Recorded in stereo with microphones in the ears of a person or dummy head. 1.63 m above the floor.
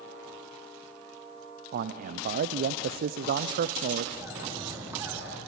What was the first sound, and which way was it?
A man speaking, 50° right (ahead or behind).